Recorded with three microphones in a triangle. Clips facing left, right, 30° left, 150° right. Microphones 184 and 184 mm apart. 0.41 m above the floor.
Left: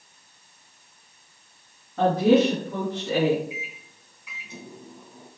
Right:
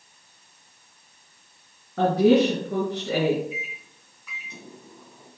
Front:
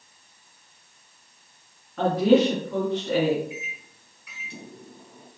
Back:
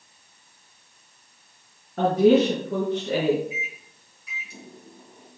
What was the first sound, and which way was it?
A woman speaking, 105° right.